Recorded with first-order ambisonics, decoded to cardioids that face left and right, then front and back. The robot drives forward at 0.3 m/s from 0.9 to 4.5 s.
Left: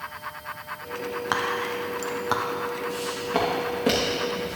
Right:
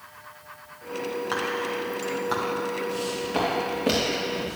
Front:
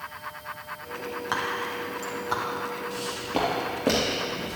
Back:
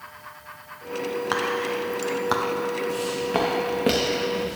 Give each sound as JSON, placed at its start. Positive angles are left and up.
{"t": 1.3, "sound": "whispering", "azimuth_deg": 120, "distance_m": 0.6}
{"t": 2.9, "sound": "footsteps", "azimuth_deg": 155, "distance_m": 3.0}